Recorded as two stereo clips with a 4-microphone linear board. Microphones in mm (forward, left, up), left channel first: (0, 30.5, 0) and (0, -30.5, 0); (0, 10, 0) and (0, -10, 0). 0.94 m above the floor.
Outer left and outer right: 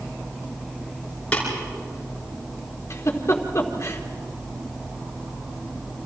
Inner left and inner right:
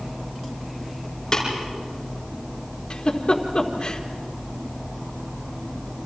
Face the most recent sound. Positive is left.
turn(degrees=50)  # may be behind; listen again after turning